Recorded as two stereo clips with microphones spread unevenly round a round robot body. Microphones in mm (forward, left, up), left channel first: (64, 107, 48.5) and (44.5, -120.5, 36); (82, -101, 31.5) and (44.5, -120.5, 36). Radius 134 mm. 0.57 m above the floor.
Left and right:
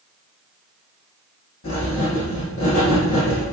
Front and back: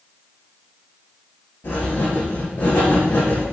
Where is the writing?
60° left, 6.5 m.